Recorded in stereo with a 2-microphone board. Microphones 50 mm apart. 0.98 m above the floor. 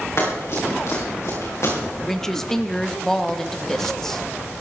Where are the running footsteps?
60° left (ahead or behind), 6.5 m; by 1.8 s 65° left (ahead or behind), 6 m.